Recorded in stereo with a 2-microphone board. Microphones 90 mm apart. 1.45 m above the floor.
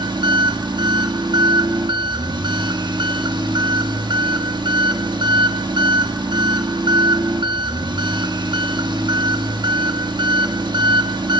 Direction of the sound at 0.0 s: 55° right (ahead or behind).